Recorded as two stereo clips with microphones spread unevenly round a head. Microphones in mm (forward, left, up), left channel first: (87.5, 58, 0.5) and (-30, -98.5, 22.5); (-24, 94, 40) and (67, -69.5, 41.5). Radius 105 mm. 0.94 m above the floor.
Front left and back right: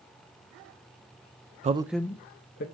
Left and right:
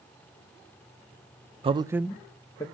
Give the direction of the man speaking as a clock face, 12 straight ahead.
3 o'clock.